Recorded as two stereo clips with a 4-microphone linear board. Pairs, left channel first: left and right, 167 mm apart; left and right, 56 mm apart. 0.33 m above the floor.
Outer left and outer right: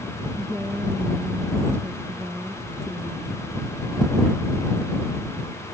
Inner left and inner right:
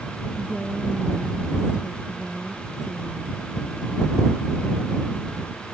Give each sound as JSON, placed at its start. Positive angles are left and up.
{"t": 0.4, "sound": "a woman speaking", "side_deg": -15}